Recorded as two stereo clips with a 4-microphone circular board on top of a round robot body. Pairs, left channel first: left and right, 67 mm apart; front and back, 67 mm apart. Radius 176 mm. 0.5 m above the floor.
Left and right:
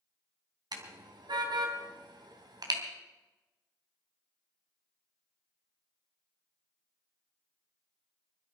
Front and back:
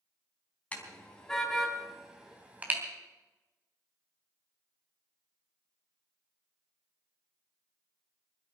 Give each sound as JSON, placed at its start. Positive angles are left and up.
{"t": 0.7, "sound": "a car horn", "azimuth_deg": -70, "distance_m": 3.0}